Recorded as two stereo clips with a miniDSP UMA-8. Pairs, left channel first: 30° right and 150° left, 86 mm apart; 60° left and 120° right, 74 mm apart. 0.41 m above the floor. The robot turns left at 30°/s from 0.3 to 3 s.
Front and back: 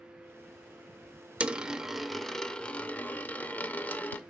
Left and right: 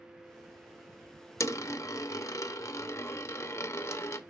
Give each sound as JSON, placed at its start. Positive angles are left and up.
{"t": 1.4, "sound": "a dropped coin", "azimuth_deg": 80, "distance_m": 0.5}